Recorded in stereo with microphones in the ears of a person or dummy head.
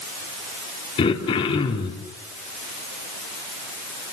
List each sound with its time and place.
1.0 s throat clearing: 30° left (ahead or behind), 4 m